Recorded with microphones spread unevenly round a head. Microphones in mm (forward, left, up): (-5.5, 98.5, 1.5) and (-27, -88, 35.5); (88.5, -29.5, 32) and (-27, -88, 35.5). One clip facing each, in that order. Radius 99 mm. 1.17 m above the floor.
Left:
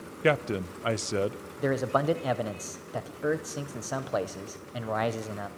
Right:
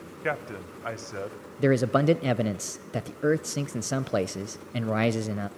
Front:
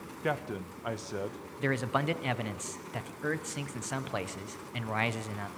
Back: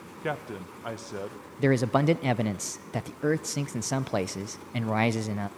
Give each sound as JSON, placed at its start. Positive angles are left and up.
{"t": 0.2, "sound": "a man speaking", "azimuth_deg": 115, "distance_m": 0.8}
{"t": 1.6, "sound": "a man speaking", "azimuth_deg": -145, "distance_m": 0.6}